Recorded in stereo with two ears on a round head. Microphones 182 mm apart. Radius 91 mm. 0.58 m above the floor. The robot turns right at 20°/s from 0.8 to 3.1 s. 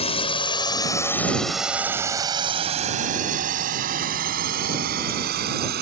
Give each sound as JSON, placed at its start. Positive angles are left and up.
{"t": 0.0, "sound": "a drone", "side_deg": 30}